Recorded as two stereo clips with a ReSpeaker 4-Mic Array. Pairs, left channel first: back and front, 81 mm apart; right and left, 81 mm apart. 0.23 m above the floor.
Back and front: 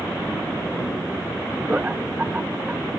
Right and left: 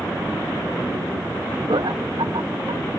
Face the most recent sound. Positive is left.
turn(degrees=70)